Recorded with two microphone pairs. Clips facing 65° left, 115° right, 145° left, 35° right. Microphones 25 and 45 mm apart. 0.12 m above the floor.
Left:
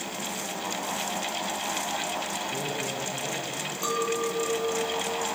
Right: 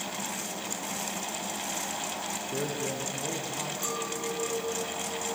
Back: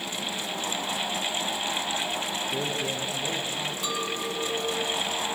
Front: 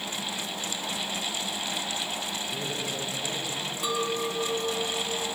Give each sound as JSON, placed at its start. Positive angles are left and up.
{"t": 2.5, "sound": "a man speaking", "azimuth_deg": -160, "distance_m": 4.0}
{"t": 3.8, "sound": "a clink", "azimuth_deg": 40, "distance_m": 0.8}